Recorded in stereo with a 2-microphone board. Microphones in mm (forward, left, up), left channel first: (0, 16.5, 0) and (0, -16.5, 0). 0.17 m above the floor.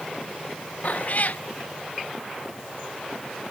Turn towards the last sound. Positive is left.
turn(degrees=50)  # may be behind; listen again after turning